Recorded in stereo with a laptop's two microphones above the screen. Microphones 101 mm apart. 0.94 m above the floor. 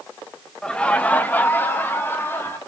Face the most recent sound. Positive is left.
turn(degrees=25)  # may be behind; listen again after turning